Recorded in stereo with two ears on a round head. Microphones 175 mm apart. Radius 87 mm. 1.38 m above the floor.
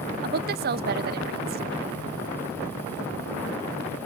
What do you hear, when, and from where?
0.2 s a woman speaking: 50° right (ahead or behind), 0.8 m